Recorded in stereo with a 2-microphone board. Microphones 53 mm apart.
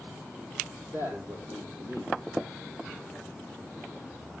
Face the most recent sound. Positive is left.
turn(degrees=-65)  # may be behind; listen again after turning